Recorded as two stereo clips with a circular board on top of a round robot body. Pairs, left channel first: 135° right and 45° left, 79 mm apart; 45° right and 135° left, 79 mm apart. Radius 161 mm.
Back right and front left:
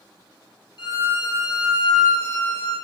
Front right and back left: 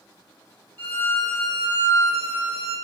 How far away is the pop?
I don't hear a pop.